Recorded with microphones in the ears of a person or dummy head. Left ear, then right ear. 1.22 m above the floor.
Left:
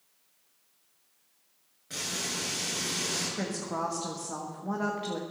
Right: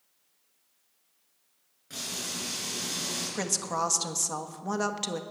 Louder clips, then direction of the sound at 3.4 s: Right 3 dB; 80° right.